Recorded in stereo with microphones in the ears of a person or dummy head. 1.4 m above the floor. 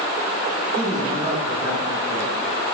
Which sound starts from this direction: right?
A man speaking, at 0.8 s.